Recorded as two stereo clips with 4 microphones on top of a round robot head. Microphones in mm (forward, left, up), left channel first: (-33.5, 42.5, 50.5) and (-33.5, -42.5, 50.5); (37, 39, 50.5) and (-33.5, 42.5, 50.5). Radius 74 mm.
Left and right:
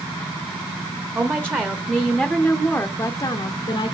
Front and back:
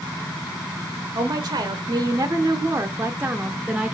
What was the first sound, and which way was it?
A woman speaking, 150° right.